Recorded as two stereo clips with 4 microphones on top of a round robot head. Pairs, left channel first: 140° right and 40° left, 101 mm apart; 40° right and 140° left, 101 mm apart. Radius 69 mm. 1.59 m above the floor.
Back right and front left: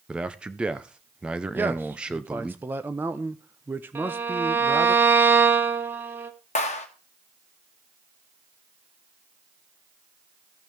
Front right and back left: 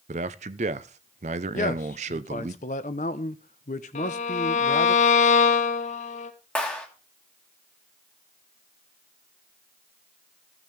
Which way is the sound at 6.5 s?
120° right.